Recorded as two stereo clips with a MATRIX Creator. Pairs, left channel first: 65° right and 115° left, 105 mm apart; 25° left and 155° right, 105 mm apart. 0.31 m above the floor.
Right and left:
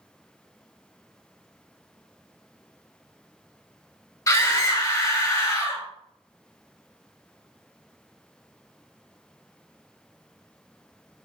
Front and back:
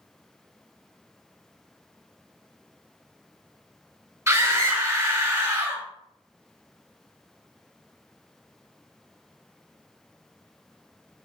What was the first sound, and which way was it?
A scream, 110° right.